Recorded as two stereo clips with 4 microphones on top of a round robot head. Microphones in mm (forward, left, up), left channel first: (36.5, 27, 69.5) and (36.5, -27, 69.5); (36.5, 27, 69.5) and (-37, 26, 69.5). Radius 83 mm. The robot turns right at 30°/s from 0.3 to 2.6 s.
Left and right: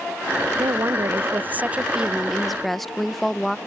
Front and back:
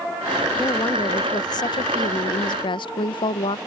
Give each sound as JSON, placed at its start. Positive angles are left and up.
{"t": 0.6, "sound": "a woman speaking", "azimuth_deg": -60}